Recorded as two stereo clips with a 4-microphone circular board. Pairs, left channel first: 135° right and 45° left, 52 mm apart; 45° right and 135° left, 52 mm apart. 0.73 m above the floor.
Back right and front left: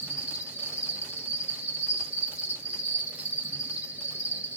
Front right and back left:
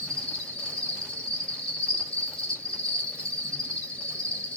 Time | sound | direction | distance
0.0 | an insect | 10° left | 1.5 m